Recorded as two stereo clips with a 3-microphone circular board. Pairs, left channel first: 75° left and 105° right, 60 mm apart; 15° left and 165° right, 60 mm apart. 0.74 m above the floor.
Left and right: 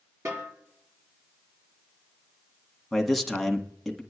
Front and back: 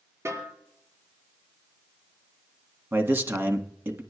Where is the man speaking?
165° left, 1.3 m.